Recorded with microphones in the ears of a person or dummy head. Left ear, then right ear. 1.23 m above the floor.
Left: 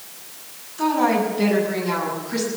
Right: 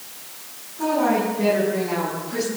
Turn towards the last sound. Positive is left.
turn(degrees=60)  # may be behind; listen again after turning